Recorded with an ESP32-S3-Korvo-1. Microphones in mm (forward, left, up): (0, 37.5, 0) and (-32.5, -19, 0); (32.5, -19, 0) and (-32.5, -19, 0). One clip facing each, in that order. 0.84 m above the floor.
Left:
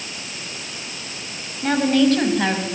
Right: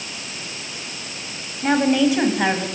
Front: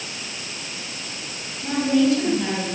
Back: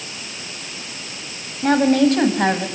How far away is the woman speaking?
About 5 m.